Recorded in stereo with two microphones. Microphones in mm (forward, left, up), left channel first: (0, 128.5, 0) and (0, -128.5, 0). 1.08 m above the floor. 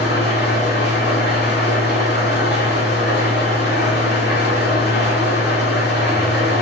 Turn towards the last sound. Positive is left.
turn(degrees=40)  # may be behind; listen again after turning